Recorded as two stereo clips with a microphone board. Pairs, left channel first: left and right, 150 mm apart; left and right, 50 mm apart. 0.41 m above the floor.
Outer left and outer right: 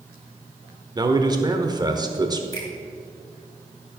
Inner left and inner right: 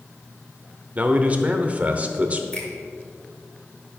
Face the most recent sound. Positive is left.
turn(degrees=25)  # may be behind; listen again after turning